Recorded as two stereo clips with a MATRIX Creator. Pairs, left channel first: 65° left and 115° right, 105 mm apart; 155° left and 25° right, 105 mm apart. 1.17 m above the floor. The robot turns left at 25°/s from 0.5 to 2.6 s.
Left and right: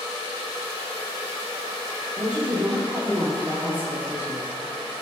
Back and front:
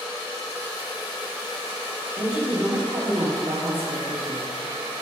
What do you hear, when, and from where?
2.2 s a woman speaking: 30° right, 2.5 m; by 4.5 s 40° right, 2.5 m